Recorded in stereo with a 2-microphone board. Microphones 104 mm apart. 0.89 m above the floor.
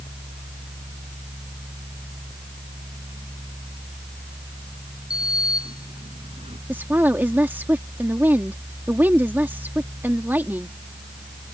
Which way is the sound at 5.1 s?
80° right.